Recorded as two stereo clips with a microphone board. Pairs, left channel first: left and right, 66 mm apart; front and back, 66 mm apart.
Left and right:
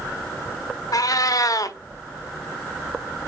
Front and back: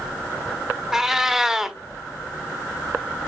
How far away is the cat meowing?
About 0.6 m.